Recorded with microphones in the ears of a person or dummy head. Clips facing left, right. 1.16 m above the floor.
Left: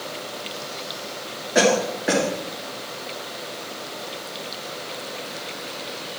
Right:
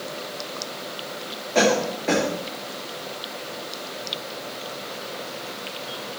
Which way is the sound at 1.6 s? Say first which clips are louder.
Left 1 dB; 10° left (ahead or behind).